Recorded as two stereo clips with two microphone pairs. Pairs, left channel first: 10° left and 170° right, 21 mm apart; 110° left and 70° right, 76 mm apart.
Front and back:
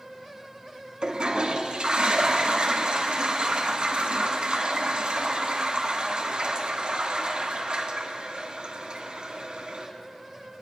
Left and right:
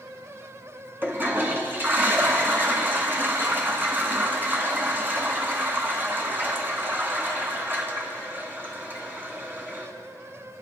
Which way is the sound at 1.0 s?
130° right.